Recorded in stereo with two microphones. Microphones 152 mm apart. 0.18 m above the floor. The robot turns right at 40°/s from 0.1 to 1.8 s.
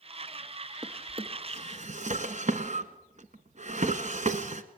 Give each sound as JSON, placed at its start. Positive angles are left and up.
{"t": 0.8, "sound": "a drawer", "side_deg": -25, "distance_m": 1.2}